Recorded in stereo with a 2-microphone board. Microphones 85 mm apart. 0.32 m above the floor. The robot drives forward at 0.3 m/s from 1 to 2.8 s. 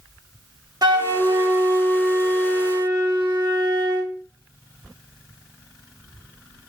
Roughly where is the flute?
Right.